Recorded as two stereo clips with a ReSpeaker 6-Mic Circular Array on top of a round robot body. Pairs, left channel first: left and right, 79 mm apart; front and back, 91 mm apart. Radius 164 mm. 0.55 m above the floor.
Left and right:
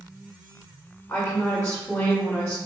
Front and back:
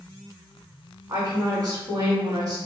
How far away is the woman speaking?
About 1.3 m.